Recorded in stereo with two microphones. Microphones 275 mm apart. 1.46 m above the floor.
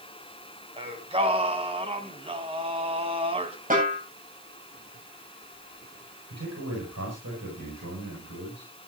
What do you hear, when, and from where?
0.8 s singing: 20° right (ahead or behind), 2.5 m
3.7 s a snare drum: 30° right (ahead or behind), 9 m
6.3 s a man speaking: 75° right (ahead or behind), 8.5 m